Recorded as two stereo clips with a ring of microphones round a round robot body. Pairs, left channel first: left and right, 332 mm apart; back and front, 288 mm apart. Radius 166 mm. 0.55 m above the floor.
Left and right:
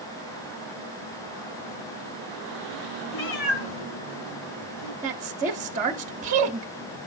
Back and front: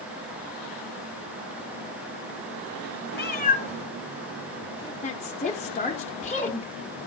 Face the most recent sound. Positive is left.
turn(degrees=-135)